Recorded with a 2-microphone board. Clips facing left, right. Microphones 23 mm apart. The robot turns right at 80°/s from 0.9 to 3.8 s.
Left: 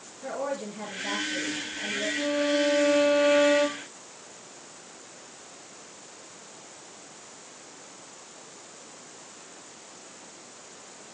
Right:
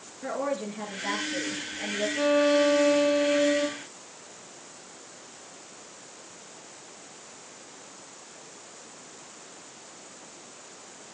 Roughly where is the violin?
Ahead right.